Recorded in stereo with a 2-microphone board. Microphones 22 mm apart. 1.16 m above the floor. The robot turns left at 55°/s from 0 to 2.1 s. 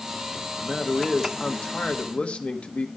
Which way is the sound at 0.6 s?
175° right.